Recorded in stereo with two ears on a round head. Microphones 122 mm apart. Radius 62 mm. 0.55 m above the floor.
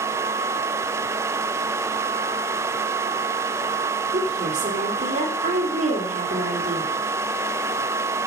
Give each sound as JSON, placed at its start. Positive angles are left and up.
{"t": 4.1, "sound": "a woman speaking", "side_deg": -60, "distance_m": 2.5}